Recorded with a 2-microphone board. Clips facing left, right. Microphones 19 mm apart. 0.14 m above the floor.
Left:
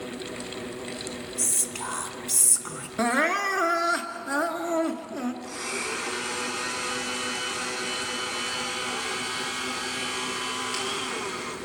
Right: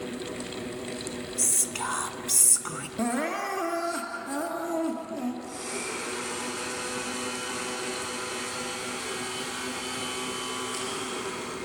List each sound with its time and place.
1.4 s whispering: 15° right (ahead or behind), 1.2 m
3.0 s crying: 50° left (ahead or behind), 1.7 m
5.4 s a blender: 55° left (ahead or behind), 7 m